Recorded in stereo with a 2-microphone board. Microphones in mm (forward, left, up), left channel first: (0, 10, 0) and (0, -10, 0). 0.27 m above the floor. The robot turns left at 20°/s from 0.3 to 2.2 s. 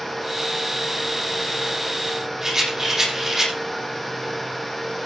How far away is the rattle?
About 8 m.